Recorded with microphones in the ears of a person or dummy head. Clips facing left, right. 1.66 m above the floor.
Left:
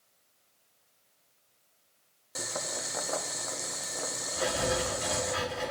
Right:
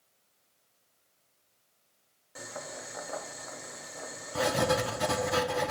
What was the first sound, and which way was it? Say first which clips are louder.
Boiling: left 4 dB; 65° left (ahead or behind).